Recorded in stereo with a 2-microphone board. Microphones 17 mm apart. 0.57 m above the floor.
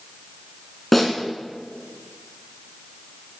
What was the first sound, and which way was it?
A snare drum, 5° left (ahead or behind).